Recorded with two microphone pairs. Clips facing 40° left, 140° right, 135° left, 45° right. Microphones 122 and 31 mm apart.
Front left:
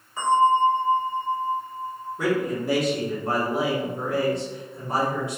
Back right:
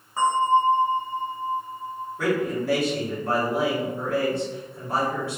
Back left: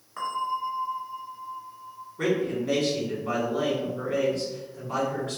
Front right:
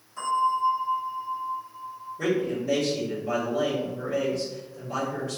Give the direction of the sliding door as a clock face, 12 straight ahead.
I don't hear a sliding door.